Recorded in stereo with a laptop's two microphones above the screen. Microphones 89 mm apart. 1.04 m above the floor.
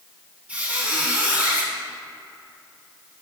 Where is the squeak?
15° right (ahead or behind), 1.4 m.